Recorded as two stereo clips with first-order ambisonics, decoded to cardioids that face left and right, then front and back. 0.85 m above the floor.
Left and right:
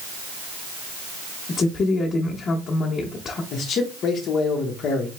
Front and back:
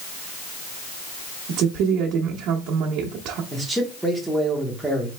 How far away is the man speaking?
About 0.9 m.